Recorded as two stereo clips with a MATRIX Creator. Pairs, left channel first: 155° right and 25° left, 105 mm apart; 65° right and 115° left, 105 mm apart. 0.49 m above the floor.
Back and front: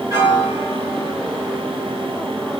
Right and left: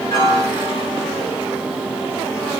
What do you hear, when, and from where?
0.1 s a piano: 20° right, 1.7 m